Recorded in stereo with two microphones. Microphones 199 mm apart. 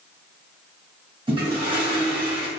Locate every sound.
1.3 s a toilet flushing: 25° right (ahead or behind), 1.4 m